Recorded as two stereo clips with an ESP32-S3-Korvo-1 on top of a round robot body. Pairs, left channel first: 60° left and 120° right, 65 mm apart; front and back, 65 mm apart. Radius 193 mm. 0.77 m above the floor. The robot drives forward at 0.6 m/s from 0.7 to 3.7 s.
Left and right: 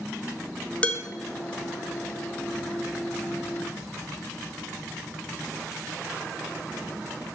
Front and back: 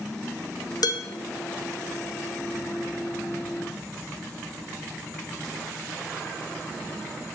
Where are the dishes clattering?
10° right, 0.9 m.